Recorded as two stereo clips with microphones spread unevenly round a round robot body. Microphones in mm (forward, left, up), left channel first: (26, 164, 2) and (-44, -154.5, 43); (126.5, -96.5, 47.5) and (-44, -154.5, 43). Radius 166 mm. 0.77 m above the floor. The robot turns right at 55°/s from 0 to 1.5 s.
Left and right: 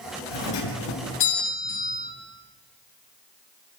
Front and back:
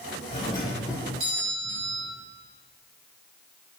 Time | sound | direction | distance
0.3 | a doorbell | 80° left | 6.5 m